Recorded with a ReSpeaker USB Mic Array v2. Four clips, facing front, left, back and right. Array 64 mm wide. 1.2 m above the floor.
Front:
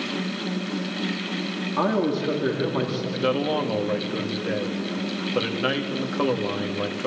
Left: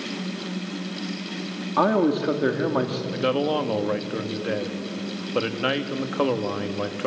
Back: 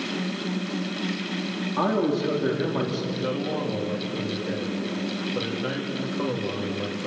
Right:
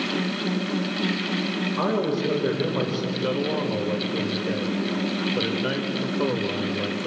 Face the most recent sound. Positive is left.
turn(degrees=65)